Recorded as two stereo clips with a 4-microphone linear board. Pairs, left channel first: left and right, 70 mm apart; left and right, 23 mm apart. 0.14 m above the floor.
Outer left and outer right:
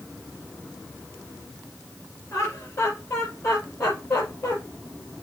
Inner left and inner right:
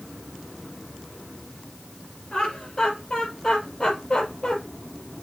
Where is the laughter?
35° left (ahead or behind), 3 m.